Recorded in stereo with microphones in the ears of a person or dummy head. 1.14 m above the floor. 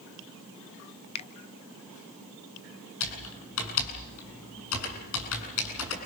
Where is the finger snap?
30° left (ahead or behind), 0.8 m.